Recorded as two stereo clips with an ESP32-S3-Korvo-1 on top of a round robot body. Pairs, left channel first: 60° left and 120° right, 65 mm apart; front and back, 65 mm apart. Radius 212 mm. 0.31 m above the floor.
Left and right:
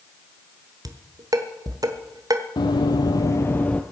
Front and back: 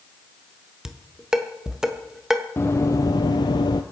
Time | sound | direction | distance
0.8 | dishes clattering | 100° right | 1.6 m
2.6 | running footsteps | 55° left | 0.8 m